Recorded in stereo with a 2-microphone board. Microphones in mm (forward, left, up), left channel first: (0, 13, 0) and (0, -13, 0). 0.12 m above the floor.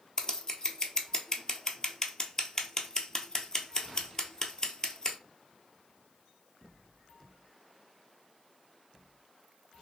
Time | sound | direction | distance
0.2 | scissors | 30° left (ahead or behind) | 0.6 m